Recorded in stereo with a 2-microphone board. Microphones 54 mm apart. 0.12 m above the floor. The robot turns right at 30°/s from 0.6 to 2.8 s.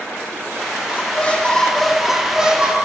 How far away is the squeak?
About 5 m.